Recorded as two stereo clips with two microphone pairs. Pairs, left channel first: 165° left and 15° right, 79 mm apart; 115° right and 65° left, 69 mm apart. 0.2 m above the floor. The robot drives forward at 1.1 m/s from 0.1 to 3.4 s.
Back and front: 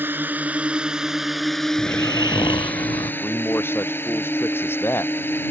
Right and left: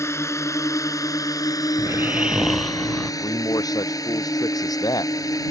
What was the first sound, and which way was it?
A drone, 80° right.